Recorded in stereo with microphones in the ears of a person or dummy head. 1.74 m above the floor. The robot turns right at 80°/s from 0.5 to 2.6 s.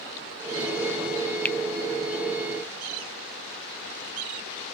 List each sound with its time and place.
1.4 s a finger snap: 5° left (ahead or behind); by 1.6 s 15° left (ahead or behind)